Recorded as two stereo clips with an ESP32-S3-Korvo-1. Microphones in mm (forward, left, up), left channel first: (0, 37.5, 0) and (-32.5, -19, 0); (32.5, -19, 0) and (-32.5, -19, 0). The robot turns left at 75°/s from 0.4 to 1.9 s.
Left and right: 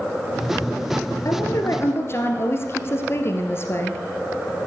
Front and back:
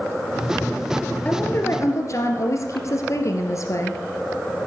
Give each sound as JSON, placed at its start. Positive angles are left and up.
{"t": 1.2, "sound": "a woman speaking", "azimuth_deg": 70, "distance_m": 2.5}